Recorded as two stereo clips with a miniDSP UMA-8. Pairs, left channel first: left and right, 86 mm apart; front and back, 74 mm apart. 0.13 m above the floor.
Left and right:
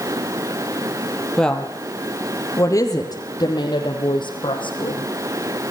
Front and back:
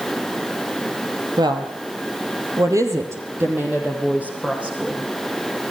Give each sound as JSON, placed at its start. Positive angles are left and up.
{"t": 1.4, "sound": "a woman speaking", "azimuth_deg": 170, "distance_m": 4.0}